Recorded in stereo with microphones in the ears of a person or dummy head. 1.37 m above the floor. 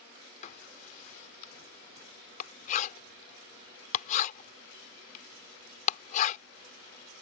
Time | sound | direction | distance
0.4 | writing | 40° left (ahead or behind) | ?